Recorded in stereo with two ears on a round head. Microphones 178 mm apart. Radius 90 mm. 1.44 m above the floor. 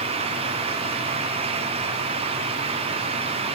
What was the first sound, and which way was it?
Only background noise.